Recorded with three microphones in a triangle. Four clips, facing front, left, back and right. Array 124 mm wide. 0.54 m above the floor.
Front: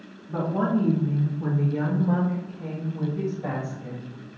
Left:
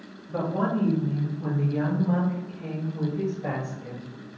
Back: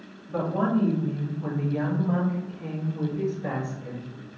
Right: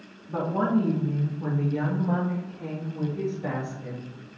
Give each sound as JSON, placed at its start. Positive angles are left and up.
{"t": 0.3, "sound": "a woman speaking", "azimuth_deg": -55, "distance_m": 1.1}